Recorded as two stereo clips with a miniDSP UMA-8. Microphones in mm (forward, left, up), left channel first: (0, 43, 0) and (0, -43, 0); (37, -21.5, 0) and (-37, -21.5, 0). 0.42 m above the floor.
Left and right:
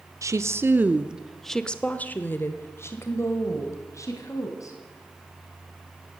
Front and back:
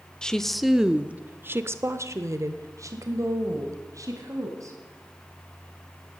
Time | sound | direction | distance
0.2 | a woman speaking | 75° right | 0.9 m